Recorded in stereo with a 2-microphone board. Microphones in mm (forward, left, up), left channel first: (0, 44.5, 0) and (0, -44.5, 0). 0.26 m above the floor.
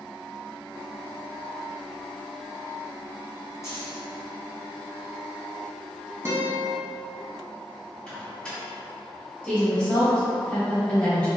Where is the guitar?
25° right (ahead or behind), 0.9 m.